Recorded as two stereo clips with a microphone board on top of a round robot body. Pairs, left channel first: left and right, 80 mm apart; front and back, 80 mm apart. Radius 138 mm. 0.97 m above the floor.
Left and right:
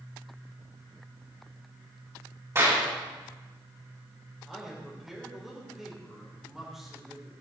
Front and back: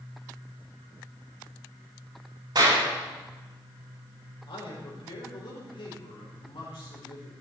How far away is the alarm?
I don't hear an alarm.